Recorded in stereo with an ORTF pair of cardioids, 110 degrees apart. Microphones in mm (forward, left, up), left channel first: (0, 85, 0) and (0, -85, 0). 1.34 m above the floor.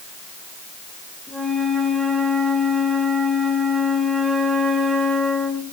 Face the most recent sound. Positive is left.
turn(degrees=0)